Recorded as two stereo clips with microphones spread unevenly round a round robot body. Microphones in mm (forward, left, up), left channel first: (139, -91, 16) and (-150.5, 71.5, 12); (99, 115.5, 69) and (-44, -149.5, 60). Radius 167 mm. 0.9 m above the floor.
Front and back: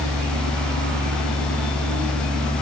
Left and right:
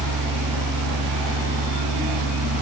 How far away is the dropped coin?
I don't hear a dropped coin.